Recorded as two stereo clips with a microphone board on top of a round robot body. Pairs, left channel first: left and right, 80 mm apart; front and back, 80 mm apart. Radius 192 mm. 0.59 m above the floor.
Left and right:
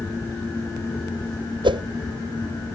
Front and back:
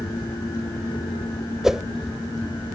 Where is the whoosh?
95° right.